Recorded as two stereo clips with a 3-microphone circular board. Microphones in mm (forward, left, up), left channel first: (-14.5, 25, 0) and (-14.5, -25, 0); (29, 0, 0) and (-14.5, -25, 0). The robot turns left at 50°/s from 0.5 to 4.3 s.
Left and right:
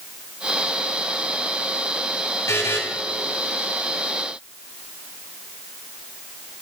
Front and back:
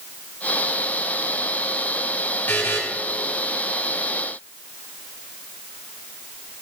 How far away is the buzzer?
About 3.5 m.